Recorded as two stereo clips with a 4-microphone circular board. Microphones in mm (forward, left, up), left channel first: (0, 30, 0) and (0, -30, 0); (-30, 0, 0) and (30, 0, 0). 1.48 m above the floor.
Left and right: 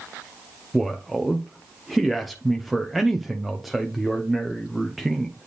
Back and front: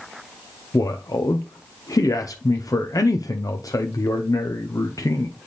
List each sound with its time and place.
0.7 s a man speaking: straight behind, 0.6 m